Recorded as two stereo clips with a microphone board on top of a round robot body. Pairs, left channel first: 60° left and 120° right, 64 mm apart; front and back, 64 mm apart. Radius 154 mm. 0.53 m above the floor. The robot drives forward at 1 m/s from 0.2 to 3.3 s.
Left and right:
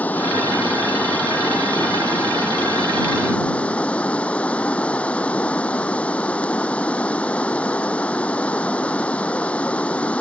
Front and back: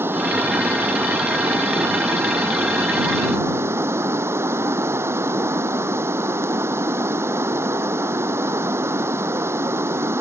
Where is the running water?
125° left; by 10.2 s 130° left.